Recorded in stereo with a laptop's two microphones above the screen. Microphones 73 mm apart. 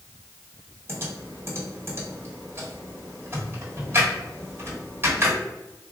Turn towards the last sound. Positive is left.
turn(degrees=-35)  # may be behind; listen again after turning